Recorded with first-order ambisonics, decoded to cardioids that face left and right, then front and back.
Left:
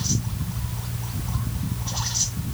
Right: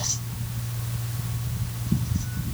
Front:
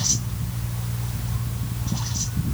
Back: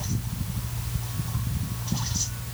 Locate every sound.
Only background noise.